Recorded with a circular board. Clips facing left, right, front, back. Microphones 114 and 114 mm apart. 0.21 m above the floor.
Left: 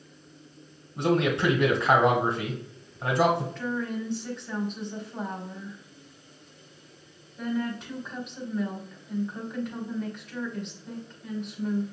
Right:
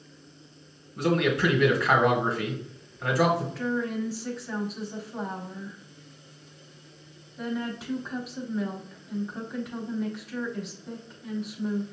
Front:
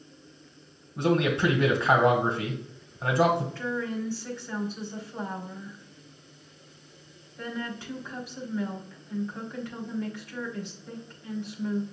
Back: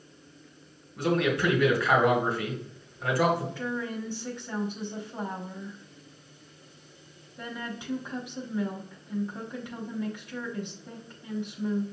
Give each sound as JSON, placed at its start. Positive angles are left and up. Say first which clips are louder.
{"t": 1.0, "sound": "a man speaking", "louder": "even, front 2 dB", "azimuth_deg": 45, "distance_m": 1.3}
{"t": 3.5, "sound": "a woman speaking", "louder": "right 2 dB, front 2 dB", "azimuth_deg": -165, "distance_m": 1.0}